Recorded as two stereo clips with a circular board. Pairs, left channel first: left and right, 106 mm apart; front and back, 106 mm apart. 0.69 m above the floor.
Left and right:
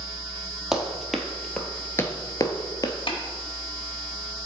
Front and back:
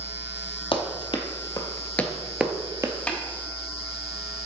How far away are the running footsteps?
About 1.2 m.